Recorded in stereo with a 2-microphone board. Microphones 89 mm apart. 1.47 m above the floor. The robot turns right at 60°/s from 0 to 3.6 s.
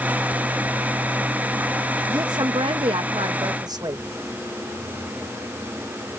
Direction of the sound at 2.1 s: 140° right.